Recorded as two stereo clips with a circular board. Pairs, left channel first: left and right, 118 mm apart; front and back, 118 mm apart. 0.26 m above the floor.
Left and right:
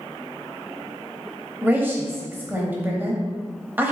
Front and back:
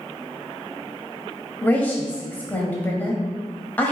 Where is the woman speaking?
50° right, 1.0 m.